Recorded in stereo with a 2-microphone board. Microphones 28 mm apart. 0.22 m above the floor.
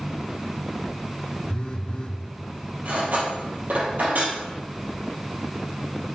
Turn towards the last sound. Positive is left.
turn(degrees=-75)  # may be behind; listen again after turning